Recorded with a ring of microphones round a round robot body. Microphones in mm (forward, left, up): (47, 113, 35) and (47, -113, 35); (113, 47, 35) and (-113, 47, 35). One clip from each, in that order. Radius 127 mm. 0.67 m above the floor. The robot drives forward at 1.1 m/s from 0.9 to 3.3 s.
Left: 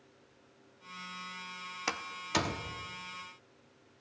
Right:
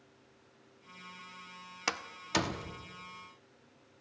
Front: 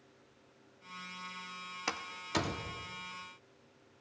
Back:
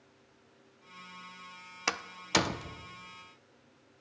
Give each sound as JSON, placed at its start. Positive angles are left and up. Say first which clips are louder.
{"t": 1.9, "sound": "a door slam", "louder": "right 1 dB, back 7 dB", "azimuth_deg": -155, "distance_m": 0.6}